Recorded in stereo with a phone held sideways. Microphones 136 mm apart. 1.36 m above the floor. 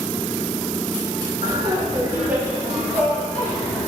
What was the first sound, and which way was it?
Laughter, 40° right (ahead or behind).